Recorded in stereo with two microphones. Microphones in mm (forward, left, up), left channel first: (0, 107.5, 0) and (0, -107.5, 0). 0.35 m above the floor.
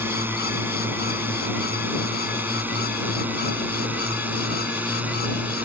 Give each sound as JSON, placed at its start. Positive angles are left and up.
{"t": 0.0, "sound": "a drone", "side_deg": -10}